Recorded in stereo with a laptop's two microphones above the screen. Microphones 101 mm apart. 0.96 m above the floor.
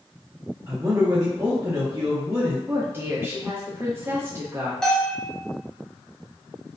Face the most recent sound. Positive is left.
turn(degrees=5)  # may be behind; listen again after turning